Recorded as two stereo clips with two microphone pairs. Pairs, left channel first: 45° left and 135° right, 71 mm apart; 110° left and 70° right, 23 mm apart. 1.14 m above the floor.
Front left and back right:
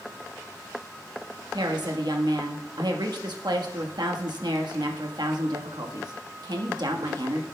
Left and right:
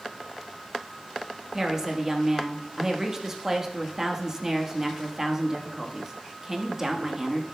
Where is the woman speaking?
140° right, 1.3 m.